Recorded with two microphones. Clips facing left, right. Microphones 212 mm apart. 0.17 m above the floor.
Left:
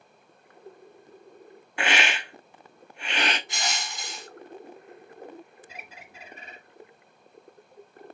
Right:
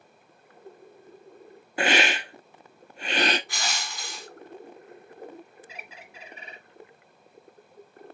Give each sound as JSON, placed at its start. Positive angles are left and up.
{"t": 1.8, "sound": "a hiss", "side_deg": -40, "distance_m": 0.5}
{"t": 3.5, "sound": "crushing", "side_deg": 25, "distance_m": 1.0}
{"t": 5.7, "sound": "a bird", "side_deg": 45, "distance_m": 1.0}